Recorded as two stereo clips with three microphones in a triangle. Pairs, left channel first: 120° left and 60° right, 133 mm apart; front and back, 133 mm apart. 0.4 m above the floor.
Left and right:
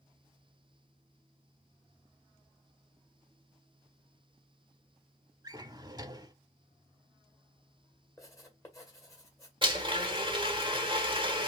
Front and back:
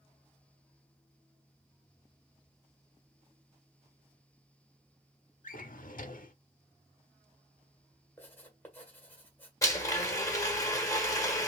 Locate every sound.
5.4 s a drawer: straight ahead, 0.7 m
8.2 s writing: 70° left, 1.6 m
9.6 s a blender: 50° right, 1.2 m